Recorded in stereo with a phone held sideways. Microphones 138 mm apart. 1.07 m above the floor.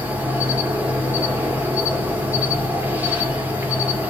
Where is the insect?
15° right (ahead or behind), 1.0 m.